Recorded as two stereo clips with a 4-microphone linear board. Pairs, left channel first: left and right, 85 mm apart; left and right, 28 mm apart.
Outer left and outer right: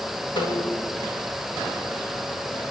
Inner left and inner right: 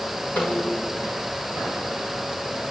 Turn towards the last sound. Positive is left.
turn(degrees=65)  # may be behind; listen again after turning